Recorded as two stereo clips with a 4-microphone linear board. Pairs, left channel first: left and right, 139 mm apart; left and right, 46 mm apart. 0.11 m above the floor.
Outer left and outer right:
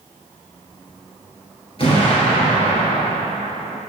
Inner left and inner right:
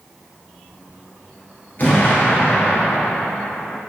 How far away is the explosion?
About 1.5 m.